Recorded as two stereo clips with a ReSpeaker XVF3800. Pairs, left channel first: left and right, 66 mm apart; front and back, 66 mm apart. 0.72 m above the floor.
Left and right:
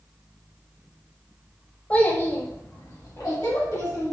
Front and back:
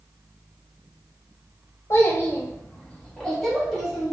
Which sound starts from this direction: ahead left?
A child speaking, at 1.9 s.